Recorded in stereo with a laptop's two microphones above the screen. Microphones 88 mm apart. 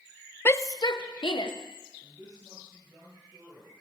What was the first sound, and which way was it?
A shout, 25° left (ahead or behind).